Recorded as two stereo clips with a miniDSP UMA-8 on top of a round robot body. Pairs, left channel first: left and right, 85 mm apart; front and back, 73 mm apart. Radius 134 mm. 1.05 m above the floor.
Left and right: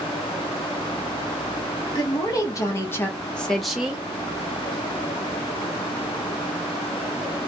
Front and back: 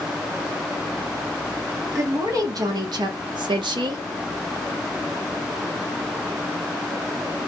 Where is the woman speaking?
130° left, 1.3 m; by 4.0 s 165° right, 0.8 m.